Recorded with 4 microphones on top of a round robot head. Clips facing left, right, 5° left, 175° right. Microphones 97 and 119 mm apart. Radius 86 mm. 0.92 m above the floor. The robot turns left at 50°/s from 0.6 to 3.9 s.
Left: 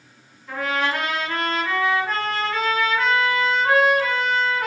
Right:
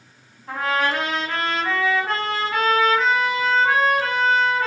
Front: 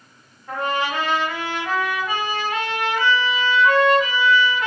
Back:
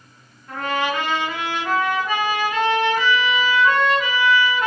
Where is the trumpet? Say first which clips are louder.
Right 2 dB, even; 45° right, 1.3 m; by 4.7 s 150° left, 1.3 m.